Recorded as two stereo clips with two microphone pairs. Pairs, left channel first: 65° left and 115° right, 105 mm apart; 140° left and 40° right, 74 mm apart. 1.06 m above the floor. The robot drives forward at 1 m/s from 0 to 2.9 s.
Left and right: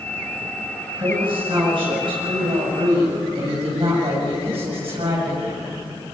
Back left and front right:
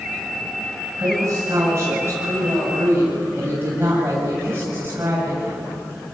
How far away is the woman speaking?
About 7.5 m.